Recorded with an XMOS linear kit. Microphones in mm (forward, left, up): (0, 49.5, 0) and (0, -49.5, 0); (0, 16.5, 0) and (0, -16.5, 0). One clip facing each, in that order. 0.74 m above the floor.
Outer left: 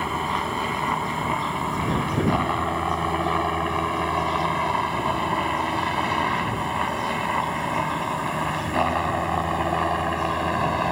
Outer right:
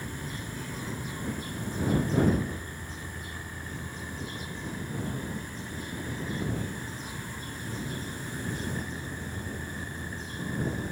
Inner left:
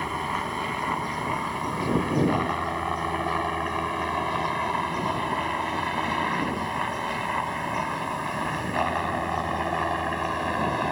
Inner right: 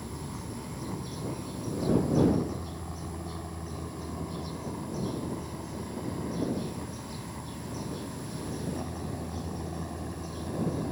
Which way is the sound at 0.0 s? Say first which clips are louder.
Outer left 14 dB, inner left 12 dB; 65° left (ahead or behind).